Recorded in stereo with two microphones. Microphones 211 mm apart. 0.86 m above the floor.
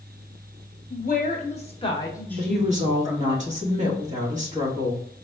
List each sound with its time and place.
0.9 s a woman speaking: 50° left (ahead or behind), 1.2 m; by 3.4 s 25° right (ahead or behind), 1.0 m
2.4 s a woman speaking: 35° right (ahead or behind), 1.5 m